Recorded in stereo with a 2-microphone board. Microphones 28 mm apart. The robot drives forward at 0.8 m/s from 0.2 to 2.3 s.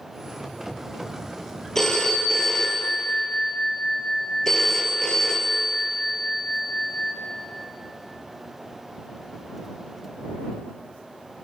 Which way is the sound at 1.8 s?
20° left (ahead or behind).